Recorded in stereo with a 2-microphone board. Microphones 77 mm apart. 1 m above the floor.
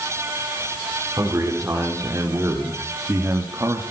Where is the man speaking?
35° right (ahead or behind), 4 m.